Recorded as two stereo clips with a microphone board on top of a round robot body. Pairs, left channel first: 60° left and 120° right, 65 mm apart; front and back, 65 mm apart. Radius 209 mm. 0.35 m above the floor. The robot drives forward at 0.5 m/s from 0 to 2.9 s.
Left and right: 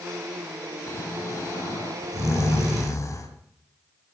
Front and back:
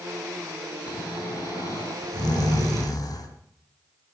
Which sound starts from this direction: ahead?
Snoring, at 0.9 s.